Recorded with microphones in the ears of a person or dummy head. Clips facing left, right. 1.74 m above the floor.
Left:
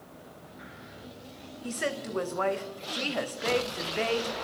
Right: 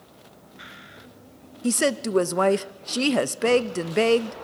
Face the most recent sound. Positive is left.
turn(degrees=-60)  # may be behind; listen again after turning